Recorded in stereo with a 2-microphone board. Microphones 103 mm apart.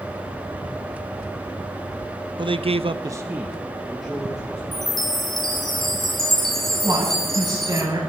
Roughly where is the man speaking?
Right.